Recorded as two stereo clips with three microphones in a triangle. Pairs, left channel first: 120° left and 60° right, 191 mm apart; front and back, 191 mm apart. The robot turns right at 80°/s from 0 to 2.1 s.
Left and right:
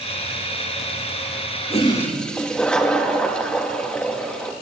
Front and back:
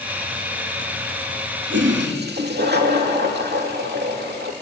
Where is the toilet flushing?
175° left, 2.5 m; by 4.5 s 155° right, 2.5 m.